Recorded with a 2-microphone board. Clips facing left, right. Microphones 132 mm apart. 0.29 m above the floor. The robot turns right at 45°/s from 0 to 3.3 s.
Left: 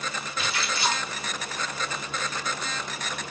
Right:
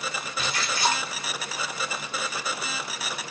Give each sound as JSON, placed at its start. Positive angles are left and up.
{"t": 0.4, "sound": "a splash", "side_deg": -35, "distance_m": 2.5}